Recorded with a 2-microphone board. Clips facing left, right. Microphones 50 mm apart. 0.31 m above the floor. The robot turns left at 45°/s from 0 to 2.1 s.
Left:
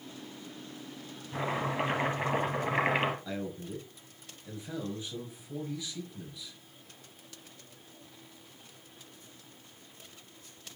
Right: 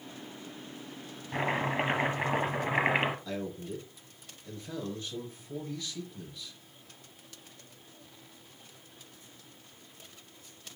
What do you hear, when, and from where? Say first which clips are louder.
1.3 s chopping: right 2 dB; 135° right, 2.5 m; by 3.1 s 170° right, 2.5 m
3.2 s a man speaking: right 1 dB; 10° left (ahead or behind), 4.5 m